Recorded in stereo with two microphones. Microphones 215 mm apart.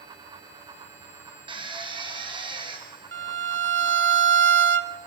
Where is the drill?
20° right (ahead or behind), 3 m.